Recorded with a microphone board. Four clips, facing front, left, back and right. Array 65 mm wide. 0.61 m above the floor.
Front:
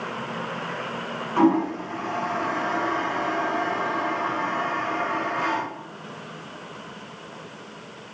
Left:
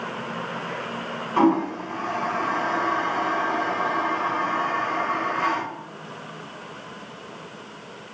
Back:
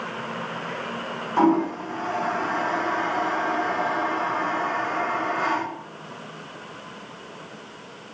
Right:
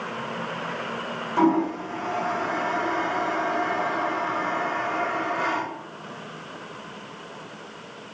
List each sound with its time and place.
1.4 s a toilet flushing: 75° left, 2.5 m